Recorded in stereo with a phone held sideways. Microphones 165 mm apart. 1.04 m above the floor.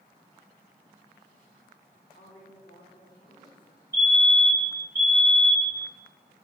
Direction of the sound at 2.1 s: 70° left (ahead or behind).